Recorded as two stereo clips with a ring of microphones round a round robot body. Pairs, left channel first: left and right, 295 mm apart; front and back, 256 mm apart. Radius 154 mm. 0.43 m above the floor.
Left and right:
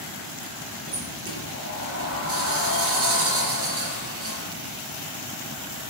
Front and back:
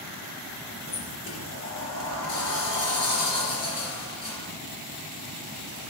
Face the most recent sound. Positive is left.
turn(degrees=-45)